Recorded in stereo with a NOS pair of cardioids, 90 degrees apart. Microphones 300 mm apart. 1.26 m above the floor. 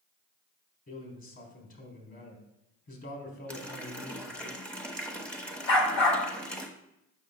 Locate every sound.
0.9 s a man speaking: 45° left, 3.5 m
3.5 s a running tap: 5° left, 1.0 m
5.7 s a dog barking: 60° left, 2.0 m